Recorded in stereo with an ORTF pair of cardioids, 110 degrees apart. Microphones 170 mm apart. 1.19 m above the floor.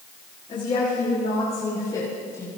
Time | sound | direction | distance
0.5 | a woman speaking | 30° left | 7 m